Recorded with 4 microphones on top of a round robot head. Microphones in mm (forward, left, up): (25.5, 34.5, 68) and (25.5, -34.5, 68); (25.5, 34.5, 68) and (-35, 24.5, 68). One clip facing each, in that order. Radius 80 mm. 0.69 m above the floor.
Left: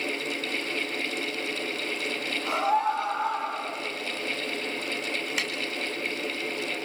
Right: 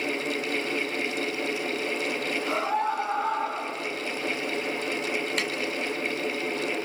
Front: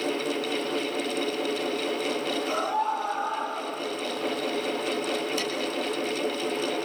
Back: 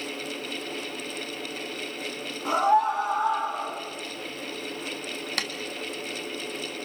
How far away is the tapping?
About 2.5 m.